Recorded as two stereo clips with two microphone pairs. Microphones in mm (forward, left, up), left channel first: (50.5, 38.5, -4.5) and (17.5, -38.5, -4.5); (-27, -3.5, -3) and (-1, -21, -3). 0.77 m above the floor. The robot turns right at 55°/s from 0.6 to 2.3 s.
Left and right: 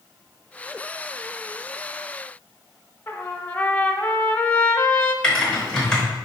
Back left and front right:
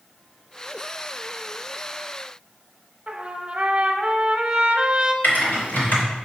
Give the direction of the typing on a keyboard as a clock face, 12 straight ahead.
7 o'clock.